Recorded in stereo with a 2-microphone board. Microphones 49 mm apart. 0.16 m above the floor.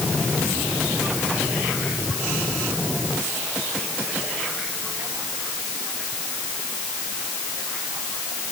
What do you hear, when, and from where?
Only background noise.